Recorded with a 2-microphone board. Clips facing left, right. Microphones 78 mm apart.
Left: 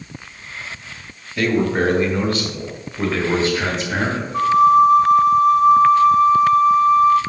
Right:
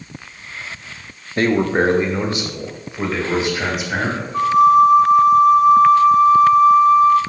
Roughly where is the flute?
Centre.